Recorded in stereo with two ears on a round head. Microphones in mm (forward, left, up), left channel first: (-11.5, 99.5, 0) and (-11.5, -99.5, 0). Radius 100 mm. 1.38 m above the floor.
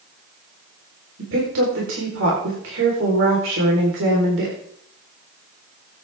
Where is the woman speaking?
70° right (ahead or behind), 4.5 m.